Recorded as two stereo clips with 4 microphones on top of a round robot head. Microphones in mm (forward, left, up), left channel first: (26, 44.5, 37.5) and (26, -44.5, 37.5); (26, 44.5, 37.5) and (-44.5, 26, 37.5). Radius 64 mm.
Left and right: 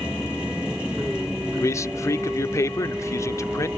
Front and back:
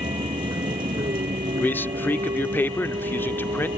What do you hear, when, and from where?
0.0 s a vehicle: 170° right
1.6 s a man speaking: 60° left